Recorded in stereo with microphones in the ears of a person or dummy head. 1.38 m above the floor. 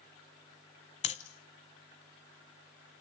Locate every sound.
1.0 s breathing: 30° left (ahead or behind), 1.0 m